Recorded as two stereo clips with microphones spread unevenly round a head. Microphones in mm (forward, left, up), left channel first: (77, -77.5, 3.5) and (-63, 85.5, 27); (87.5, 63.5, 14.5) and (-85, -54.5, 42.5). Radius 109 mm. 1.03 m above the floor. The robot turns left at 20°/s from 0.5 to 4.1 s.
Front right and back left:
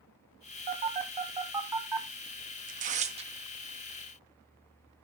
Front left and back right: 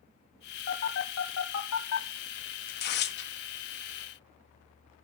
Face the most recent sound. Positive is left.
turn(degrees=50)